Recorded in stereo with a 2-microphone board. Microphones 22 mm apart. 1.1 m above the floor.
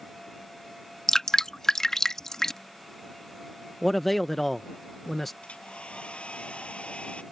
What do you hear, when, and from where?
1.1 s dripping: 25° left (ahead or behind)
3.8 s a man speaking: 10° left (ahead or behind)
5.4 s a hair dryer: 70° left (ahead or behind)